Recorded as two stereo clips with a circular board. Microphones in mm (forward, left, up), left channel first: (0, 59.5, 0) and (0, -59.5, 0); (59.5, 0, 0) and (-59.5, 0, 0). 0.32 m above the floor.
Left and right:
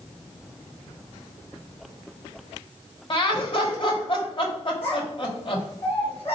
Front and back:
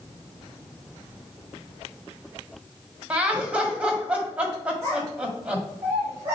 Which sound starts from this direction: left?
Laughter, at 3.1 s.